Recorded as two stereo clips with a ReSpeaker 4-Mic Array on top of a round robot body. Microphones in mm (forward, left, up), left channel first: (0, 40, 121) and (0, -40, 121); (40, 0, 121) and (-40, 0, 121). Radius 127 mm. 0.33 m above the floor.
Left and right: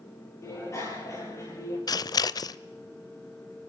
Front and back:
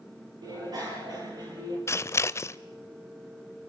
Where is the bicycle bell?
145° left, 7.5 m; by 1.8 s 140° left, 8.5 m.